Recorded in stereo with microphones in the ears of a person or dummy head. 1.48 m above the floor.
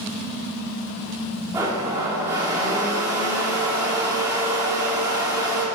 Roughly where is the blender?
Centre.